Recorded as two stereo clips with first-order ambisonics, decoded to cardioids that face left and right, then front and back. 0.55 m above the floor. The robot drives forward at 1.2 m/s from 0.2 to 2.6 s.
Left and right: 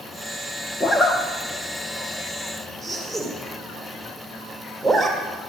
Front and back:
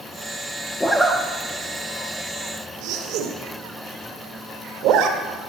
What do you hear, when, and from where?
0.8 s a zipper: 55° left, 1.2 m; by 5.2 s 170° left, 2.5 m